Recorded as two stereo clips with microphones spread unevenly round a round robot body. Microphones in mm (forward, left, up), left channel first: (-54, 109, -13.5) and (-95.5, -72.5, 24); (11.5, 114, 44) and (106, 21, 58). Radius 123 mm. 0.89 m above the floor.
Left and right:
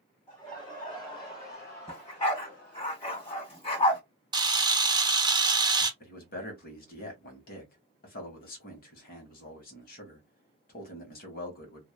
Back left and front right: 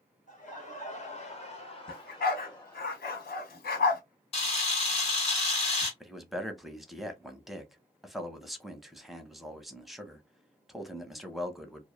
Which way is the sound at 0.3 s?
145° left.